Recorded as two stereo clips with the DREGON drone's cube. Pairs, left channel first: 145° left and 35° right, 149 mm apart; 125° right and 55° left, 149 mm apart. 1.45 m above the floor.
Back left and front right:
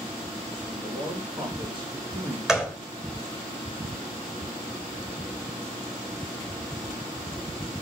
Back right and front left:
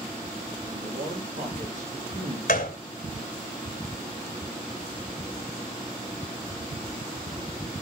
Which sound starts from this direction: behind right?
A gunshot, at 2.5 s.